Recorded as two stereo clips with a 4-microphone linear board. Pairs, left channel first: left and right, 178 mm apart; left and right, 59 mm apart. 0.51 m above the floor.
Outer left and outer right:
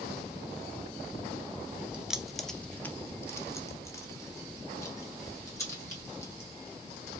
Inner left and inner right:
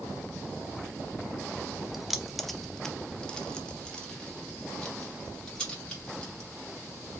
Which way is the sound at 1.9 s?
5° right (ahead or behind).